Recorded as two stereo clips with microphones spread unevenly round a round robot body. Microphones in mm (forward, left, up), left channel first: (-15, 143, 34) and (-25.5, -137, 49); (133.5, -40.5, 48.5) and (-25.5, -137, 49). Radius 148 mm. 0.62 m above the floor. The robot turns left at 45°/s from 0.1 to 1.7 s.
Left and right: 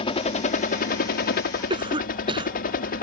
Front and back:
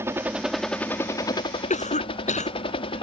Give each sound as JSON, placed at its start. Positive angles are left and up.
{"t": 0.0, "sound": "a helicopter", "azimuth_deg": 140}
{"t": 1.7, "sound": "a cough", "azimuth_deg": -20}